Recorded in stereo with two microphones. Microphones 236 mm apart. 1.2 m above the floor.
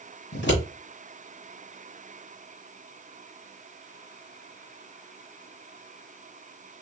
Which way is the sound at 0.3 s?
55° left (ahead or behind).